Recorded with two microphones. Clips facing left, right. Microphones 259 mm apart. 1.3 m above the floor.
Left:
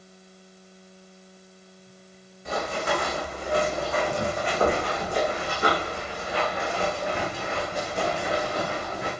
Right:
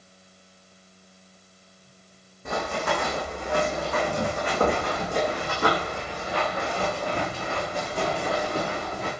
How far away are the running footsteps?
About 4 m.